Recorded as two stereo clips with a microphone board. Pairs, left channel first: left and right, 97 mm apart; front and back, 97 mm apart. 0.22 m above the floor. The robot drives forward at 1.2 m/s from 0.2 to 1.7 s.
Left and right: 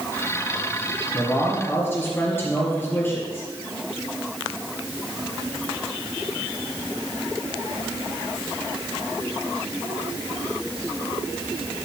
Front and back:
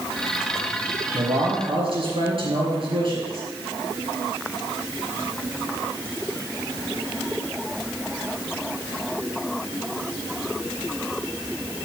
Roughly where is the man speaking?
Behind left.